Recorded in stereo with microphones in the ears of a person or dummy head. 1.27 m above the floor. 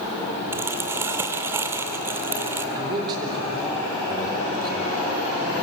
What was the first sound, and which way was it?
Crumpling, 20° right (ahead or behind).